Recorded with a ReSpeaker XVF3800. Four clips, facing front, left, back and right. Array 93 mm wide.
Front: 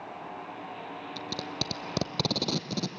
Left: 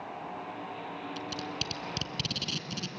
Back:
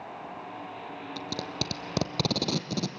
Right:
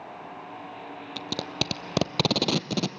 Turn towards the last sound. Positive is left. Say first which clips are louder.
# right 4 dB, back 2 dB
turn(degrees=-90)